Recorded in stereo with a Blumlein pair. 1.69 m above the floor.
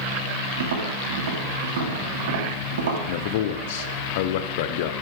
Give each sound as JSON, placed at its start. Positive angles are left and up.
{"t": 0.6, "sound": "tapping", "azimuth_deg": -60, "distance_m": 3.0}
{"t": 3.1, "sound": "a man speaking", "azimuth_deg": 50, "distance_m": 1.0}